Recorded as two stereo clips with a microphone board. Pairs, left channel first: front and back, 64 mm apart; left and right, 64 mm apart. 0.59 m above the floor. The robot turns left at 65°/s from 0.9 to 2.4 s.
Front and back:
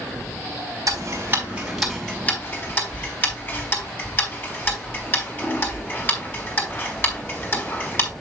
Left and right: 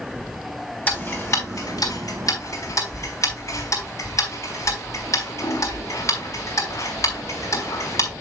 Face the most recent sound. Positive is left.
turn(degrees=55)